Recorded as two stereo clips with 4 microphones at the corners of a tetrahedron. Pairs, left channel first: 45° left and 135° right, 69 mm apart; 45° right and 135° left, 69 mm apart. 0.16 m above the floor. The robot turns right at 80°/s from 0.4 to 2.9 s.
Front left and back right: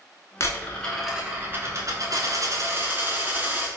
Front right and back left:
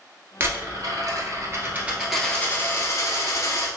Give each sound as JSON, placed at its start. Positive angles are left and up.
{"t": 0.4, "sound": "a dropped coin", "azimuth_deg": 85, "distance_m": 0.9}